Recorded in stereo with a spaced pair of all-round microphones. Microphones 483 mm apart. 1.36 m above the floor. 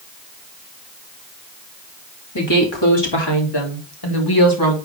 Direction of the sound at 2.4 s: 65° left (ahead or behind).